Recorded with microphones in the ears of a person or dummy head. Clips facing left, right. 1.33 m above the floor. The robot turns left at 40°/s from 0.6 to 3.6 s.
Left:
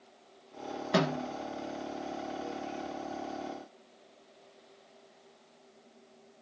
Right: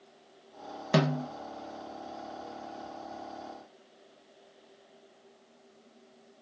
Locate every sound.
0.9 s a snare drum: 50° right (ahead or behind), 0.9 m; by 1.3 s 40° right (ahead or behind), 0.9 m